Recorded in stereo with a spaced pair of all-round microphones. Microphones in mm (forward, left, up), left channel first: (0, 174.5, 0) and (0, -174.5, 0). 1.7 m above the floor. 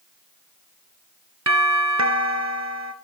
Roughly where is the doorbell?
Right.